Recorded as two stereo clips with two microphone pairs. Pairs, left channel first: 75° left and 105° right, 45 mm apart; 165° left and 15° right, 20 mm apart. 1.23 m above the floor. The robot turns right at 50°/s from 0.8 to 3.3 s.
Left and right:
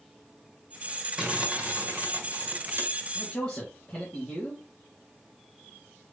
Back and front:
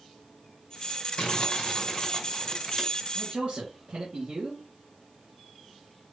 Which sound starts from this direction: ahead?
A man speaking, at 3.1 s.